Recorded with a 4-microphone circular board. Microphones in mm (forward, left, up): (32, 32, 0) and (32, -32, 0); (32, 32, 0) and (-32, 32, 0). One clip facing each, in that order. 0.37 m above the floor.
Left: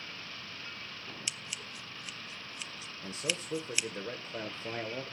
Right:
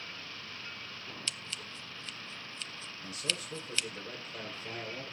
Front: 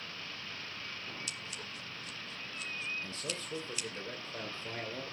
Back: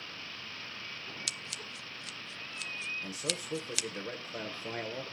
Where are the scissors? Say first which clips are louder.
Even, back 1 dB; 165° left, 0.6 m.